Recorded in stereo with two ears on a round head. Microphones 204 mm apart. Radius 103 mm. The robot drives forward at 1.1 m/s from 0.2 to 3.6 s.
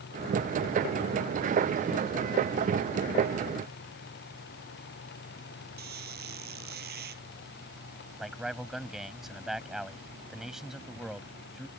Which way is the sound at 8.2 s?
Centre (ahead or behind).